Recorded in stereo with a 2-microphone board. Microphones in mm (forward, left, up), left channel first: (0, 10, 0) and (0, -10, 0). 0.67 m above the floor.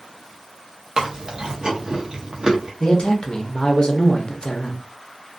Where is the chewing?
45° right (ahead or behind), 0.7 m.